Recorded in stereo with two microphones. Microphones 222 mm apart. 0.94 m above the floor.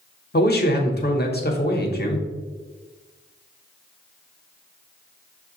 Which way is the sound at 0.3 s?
45° left (ahead or behind).